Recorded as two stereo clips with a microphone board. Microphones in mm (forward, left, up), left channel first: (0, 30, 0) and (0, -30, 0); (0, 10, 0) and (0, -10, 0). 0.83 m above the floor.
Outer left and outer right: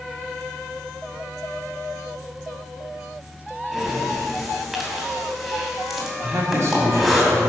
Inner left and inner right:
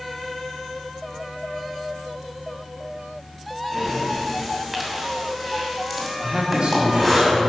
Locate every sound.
3.7 s breathing: centre (ahead or behind), 2.5 m
6.2 s a man speaking: 50° right (ahead or behind), 2 m